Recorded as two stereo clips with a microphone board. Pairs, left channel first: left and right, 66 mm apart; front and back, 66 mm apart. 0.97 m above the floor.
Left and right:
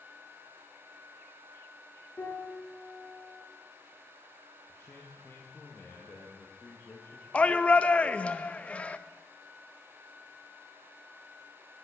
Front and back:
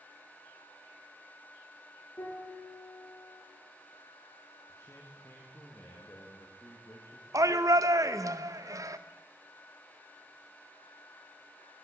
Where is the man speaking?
40° left, 1.7 m.